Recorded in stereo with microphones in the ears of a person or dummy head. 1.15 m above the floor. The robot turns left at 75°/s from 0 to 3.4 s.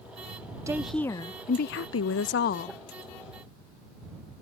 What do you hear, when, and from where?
0.7 s a woman speaking: 160° right; by 2.7 s 45° left